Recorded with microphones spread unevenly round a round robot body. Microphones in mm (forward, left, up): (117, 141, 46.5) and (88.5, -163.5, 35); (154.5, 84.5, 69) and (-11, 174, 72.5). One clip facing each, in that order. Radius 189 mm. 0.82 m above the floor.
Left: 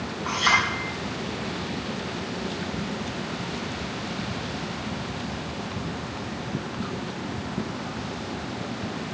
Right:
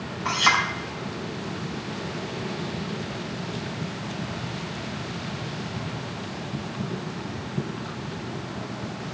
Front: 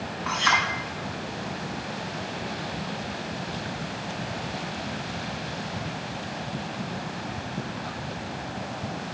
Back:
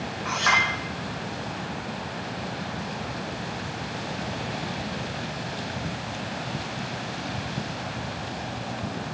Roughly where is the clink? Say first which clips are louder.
Right 2 dB, even; behind right.